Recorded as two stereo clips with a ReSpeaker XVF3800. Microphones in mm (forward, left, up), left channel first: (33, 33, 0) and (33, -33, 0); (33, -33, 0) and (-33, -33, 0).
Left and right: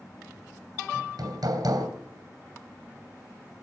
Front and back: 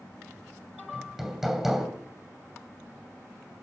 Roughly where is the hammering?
Right.